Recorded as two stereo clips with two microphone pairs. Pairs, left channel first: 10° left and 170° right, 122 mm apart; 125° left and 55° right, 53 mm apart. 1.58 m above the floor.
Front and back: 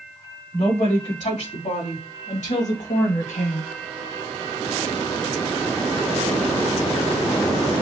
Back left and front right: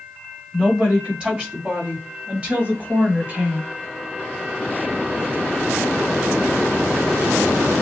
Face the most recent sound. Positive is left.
turn(degrees=0)